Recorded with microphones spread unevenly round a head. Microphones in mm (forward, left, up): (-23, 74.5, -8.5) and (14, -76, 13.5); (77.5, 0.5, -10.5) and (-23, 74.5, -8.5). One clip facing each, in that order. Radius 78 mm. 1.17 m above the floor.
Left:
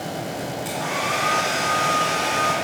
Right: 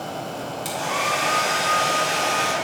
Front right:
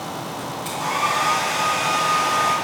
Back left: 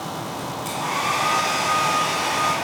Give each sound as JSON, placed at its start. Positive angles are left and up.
{"t": 0.7, "sound": "a hair dryer", "azimuth_deg": -130, "distance_m": 5.0}